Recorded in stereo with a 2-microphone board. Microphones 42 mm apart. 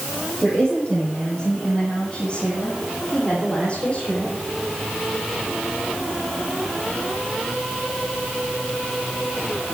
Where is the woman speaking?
40° left (ahead or behind), 9.5 m; by 4.4 s 35° left (ahead or behind), 13 m.